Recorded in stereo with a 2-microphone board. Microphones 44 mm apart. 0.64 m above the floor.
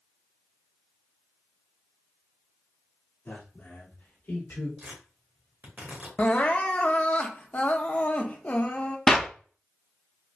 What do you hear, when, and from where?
3.2 s a man speaking: 55° left (ahead or behind), 1.5 m; by 4.7 s 60° left (ahead or behind), 2.5 m
4.8 s tearing paper: 45° right (ahead or behind), 1.4 m
6.2 s crying: 35° left (ahead or behind), 0.5 m
9.1 s a clap: 15° left (ahead or behind), 0.5 m